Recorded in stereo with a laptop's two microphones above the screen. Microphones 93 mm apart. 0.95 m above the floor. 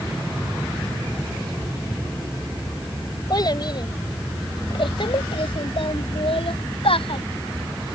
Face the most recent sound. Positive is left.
turn(degrees=90)